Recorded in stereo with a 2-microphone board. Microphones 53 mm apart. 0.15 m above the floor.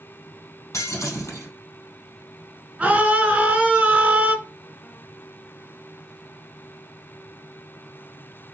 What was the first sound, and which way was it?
Breaking glass, 70° left (ahead or behind).